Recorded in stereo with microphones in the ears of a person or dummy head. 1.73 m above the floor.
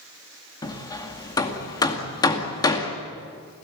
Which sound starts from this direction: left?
Hammering, at 0.6 s.